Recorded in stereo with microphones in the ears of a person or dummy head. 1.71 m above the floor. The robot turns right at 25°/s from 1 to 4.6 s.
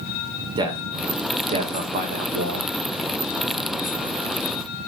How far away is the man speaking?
About 1.6 m.